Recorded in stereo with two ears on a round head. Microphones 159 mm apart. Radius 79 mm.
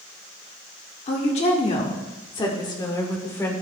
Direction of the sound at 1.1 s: 40° left (ahead or behind).